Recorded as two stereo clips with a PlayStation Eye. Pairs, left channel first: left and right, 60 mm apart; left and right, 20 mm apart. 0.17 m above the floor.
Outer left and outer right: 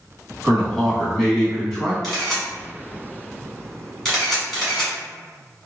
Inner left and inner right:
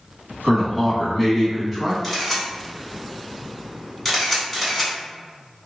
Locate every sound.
0.4 s a man speaking: 5° left (ahead or behind), 1.1 m
2.0 s a camera shutter: 5° left (ahead or behind), 1.5 m